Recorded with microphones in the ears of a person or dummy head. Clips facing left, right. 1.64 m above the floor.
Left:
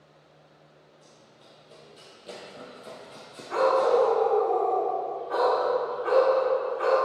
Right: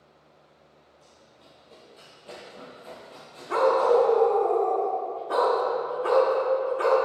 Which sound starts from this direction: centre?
Running footsteps, at 1.0 s.